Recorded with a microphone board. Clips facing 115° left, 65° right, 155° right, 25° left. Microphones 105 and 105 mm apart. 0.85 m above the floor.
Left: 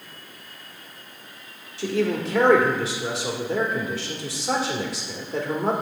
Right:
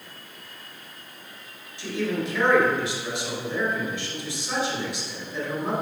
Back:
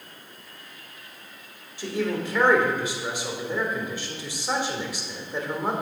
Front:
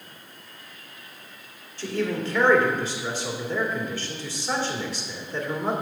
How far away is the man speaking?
About 2 m.